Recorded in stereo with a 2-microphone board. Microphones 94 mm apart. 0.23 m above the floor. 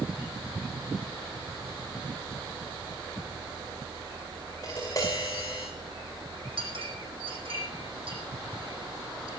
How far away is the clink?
About 6.5 m.